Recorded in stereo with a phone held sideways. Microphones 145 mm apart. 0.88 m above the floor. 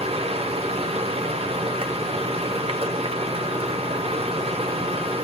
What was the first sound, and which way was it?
A machine running, 40° right (ahead or behind).